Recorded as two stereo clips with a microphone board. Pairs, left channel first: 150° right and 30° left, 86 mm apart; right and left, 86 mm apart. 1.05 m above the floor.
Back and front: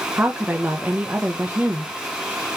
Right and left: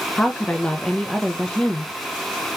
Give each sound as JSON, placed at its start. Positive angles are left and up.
{"t": 0.2, "sound": "a woman speaking", "azimuth_deg": -20, "distance_m": 0.6}